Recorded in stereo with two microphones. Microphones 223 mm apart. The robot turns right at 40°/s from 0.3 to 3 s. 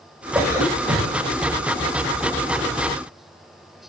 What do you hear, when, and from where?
0.3 s a cough: straight behind, 8 m; by 1.2 s 145° right, 8 m